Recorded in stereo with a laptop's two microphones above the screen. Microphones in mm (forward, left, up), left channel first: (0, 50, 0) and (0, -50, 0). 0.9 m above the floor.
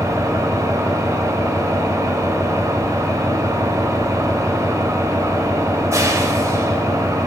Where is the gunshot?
No gunshot in this recording.